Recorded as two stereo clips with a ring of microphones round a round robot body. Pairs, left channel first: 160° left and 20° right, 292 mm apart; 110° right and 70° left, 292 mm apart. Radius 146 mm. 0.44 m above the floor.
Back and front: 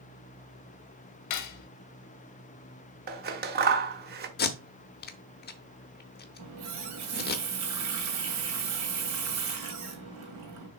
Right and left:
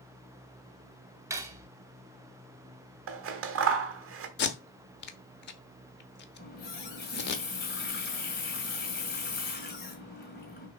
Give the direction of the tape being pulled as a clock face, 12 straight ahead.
5 o'clock.